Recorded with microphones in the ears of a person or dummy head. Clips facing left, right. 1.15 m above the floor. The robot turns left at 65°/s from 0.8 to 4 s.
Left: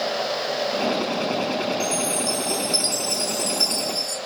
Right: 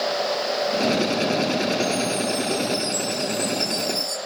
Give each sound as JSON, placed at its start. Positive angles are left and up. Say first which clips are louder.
{"t": 1.8, "sound": "a chime", "louder": "right 2 dB", "azimuth_deg": 140, "distance_m": 1.6}